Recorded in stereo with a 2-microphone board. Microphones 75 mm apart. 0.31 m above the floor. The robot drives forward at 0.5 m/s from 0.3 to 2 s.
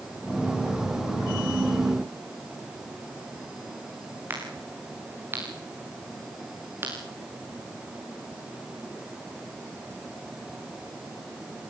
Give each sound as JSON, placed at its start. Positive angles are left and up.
{"t": 4.3, "sound": "a crack", "side_deg": -30, "distance_m": 6.5}